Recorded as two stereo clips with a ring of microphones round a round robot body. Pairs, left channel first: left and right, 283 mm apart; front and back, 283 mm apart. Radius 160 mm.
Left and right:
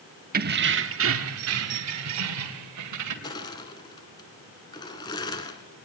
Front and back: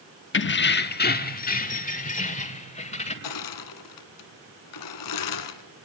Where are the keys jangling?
35° right, 1.0 m; by 3.1 s 65° right, 2.5 m.